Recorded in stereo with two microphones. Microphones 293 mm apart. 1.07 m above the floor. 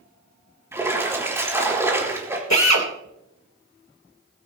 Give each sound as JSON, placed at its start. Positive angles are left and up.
{"t": 0.7, "sound": "a splash", "side_deg": -10, "distance_m": 4.0}
{"t": 2.5, "sound": "a drill", "side_deg": 70, "distance_m": 3.0}